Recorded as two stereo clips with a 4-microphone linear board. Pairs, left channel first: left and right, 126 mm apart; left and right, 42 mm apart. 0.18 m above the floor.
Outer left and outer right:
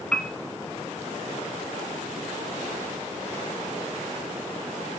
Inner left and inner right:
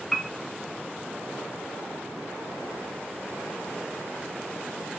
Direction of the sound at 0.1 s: 5° left (ahead or behind).